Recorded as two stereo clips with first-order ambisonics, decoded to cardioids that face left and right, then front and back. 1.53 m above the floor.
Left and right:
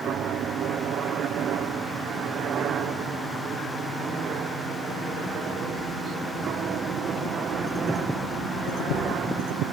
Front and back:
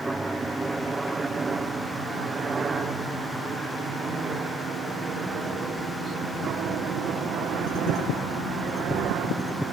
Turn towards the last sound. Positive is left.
turn(degrees=-145)